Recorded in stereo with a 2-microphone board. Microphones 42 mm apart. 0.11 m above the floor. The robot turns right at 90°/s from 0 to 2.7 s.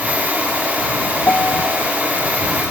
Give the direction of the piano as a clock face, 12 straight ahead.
10 o'clock.